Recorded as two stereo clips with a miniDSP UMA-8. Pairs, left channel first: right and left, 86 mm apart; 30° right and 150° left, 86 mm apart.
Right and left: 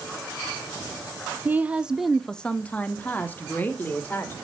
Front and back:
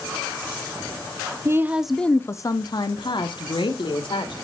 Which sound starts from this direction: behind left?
A woman speaking, at 1.4 s.